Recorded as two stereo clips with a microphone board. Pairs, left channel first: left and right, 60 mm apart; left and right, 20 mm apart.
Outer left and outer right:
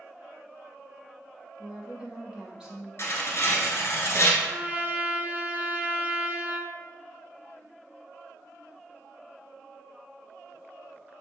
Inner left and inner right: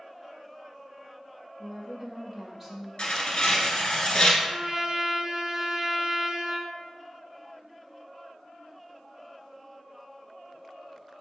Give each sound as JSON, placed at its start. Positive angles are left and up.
{"t": 1.6, "sound": "a woman speaking", "side_deg": -15, "distance_m": 1.1}
{"t": 3.0, "sound": "tearing paper", "side_deg": 45, "distance_m": 0.9}
{"t": 4.4, "sound": "a trumpet", "side_deg": -30, "distance_m": 0.5}